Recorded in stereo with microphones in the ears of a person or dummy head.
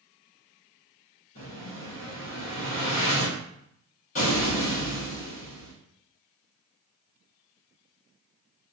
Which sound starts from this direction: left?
An explosion, at 1.4 s.